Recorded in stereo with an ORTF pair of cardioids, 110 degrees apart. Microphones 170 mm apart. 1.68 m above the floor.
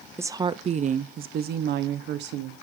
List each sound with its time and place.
0.2 s a woman speaking: 15° right, 0.7 m; by 2.5 s 75° right, 1.5 m